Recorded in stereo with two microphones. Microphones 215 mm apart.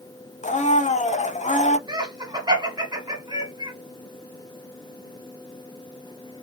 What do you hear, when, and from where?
0.4 s a blender: 35° left (ahead or behind), 0.5 m
1.9 s laughter: 20° right (ahead or behind), 1.3 m